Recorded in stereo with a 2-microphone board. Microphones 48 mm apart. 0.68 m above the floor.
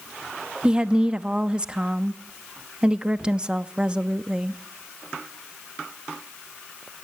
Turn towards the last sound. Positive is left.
turn(degrees=-20)  # may be behind; listen again after turning